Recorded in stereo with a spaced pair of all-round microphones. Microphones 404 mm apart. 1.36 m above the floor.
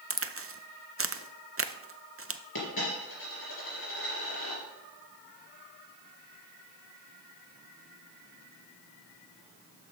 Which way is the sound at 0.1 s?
35° right (ahead or behind).